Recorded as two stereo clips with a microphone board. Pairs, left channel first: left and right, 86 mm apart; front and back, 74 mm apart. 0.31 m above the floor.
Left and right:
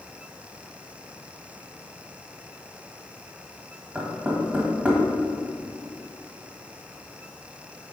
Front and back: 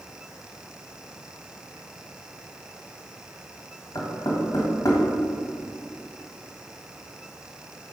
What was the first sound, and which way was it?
Knocking, 20° right.